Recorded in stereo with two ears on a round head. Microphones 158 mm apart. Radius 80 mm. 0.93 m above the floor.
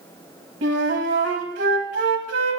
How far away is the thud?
No thud in this recording.